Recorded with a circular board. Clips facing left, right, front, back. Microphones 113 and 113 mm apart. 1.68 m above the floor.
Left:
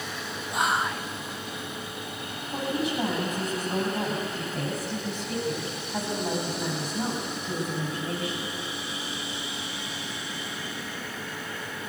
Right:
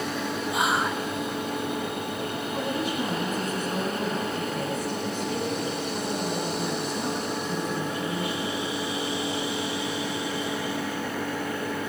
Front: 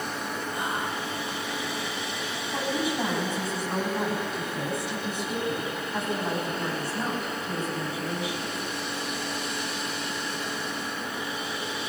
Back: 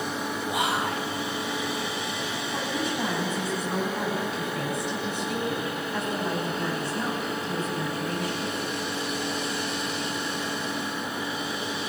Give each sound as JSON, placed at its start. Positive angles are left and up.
{"t": 0.5, "sound": "whispering", "azimuth_deg": -175, "distance_m": 0.6}
{"t": 2.5, "sound": "a woman speaking", "azimuth_deg": 85, "distance_m": 10.0}